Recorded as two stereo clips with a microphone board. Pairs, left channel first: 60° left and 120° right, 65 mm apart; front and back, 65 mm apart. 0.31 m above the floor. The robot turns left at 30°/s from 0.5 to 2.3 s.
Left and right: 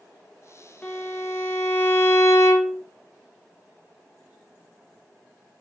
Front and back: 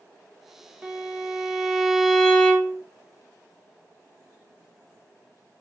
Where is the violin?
125° left, 0.6 m; by 2.8 s 80° left, 0.6 m.